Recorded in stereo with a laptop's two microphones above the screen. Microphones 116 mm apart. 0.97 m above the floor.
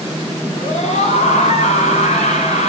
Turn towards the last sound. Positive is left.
turn(degrees=85)